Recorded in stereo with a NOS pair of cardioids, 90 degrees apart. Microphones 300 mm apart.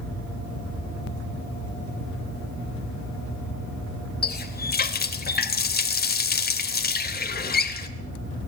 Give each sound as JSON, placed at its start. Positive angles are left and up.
{"t": 4.2, "sound": "a running tap", "azimuth_deg": 30, "distance_m": 3.0}